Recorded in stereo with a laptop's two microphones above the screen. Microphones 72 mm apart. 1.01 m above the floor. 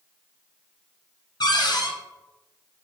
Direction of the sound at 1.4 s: 70° left (ahead or behind).